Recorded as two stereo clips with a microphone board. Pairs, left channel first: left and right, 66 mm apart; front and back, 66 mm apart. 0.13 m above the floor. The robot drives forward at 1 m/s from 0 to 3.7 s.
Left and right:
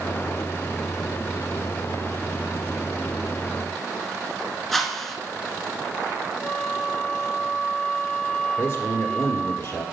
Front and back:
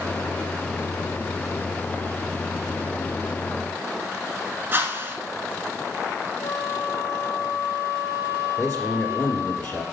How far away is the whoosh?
About 0.9 m.